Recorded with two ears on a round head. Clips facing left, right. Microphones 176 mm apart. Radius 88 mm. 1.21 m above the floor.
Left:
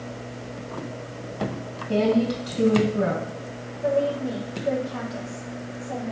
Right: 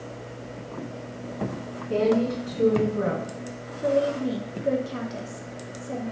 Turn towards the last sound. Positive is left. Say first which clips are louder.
# even
turn(degrees=-35)  # may be behind; listen again after turning